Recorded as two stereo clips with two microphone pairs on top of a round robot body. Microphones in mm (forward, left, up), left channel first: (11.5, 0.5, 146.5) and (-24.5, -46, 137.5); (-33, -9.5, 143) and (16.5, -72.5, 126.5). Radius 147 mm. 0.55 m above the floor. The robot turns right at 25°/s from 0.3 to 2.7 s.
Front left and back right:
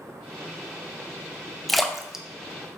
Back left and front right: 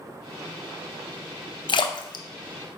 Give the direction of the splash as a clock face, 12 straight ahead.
7 o'clock.